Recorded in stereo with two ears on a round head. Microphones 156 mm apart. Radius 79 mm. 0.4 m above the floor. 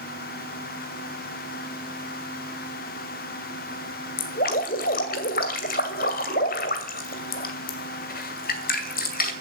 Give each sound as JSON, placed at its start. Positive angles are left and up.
{"t": 4.2, "sound": "dripping", "side_deg": 55, "distance_m": 2.0}